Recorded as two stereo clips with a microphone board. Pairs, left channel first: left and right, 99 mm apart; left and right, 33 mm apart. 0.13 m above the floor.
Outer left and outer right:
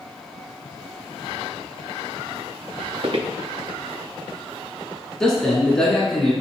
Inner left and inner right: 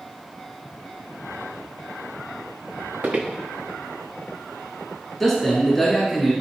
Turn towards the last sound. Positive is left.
turn(degrees=10)  # may be behind; listen again after turning